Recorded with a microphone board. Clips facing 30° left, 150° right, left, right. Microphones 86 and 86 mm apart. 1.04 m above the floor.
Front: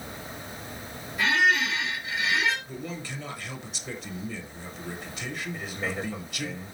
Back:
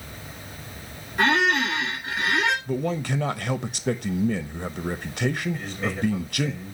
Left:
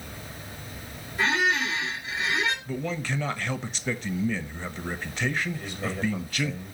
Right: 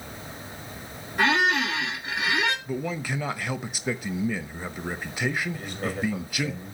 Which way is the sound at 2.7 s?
170° right.